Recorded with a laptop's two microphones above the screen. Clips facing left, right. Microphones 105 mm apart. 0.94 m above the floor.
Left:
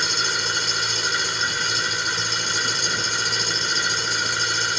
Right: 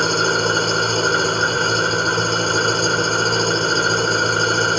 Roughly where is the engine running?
Right.